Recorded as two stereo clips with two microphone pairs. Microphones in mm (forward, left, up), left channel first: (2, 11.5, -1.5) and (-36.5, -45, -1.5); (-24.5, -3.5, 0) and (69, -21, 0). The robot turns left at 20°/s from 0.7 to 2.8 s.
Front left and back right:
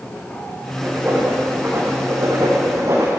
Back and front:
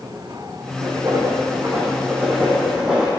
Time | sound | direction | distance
0.8 | writing | 50° right | 3.5 m